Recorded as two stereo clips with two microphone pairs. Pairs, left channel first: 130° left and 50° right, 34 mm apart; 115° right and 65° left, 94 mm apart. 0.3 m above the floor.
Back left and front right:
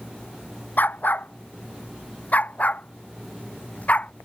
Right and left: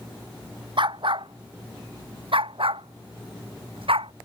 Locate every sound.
0.8 s a dog barking: 95° left; by 4.1 s 80° left